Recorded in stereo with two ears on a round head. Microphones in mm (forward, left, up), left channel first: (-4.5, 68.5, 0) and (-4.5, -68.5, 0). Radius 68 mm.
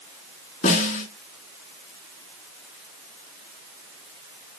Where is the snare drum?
50° left (ahead or behind), 2.5 m.